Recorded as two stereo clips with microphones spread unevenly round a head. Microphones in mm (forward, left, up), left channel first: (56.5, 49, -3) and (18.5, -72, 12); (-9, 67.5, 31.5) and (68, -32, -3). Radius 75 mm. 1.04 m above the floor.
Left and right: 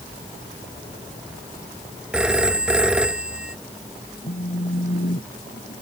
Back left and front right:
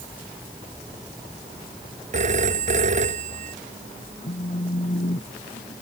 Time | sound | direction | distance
2.1 | a phone ringing | 25° right | ?
4.2 | a phone buzzing | 100° left | ?